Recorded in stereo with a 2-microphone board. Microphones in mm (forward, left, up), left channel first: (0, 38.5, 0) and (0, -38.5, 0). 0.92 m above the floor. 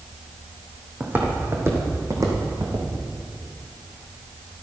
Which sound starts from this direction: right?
Footsteps, at 1.0 s.